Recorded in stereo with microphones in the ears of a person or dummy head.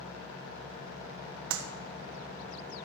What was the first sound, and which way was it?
A clap, 75° right (ahead or behind).